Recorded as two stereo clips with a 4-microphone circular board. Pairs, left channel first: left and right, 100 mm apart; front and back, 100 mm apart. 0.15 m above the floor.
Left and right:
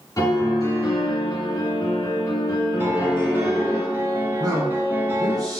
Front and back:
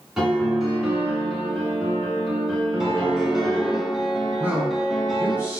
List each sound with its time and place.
0.2 s a piano: 95° left, 1.5 m
2.8 s a piano: 95° right, 0.9 m
4.4 s a man speaking: 115° right, 1.9 m